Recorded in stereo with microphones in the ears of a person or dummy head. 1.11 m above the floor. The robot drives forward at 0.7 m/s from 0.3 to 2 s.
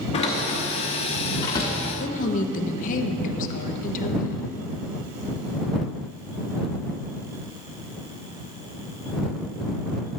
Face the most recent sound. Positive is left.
turn(degrees=45)  # may be behind; listen again after turning